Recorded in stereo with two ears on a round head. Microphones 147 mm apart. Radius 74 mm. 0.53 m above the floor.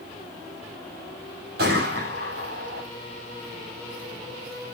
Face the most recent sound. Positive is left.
turn(degrees=-60)  # may be behind; listen again after turning